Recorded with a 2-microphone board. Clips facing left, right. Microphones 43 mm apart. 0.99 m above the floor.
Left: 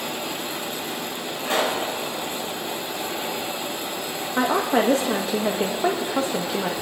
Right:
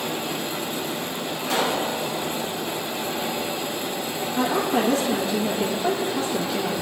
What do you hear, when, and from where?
1.4 s a pop: 45° left (ahead or behind), 4 m
4.4 s a woman speaking: 65° left (ahead or behind), 1.0 m